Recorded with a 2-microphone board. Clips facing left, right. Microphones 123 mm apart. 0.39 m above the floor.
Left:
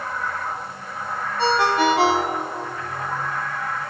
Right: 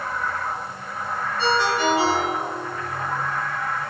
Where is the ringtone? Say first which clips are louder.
Left 3 dB; 60° left (ahead or behind), 1.4 m.